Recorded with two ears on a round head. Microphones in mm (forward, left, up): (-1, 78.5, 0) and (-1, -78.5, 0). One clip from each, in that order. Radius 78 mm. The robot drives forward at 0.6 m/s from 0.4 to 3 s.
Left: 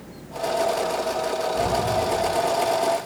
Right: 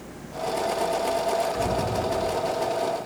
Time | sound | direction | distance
1.6 | an explosion | 75° right (ahead or behind) | 9 m